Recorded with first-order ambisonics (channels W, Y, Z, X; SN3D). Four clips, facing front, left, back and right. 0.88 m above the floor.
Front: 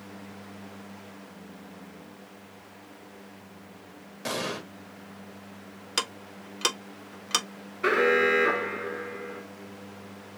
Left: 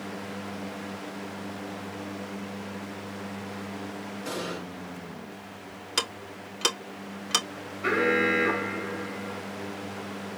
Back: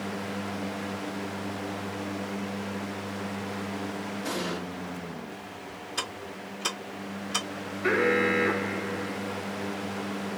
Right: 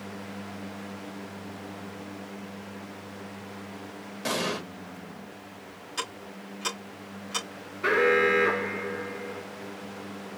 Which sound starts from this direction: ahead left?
Ticking, at 6.0 s.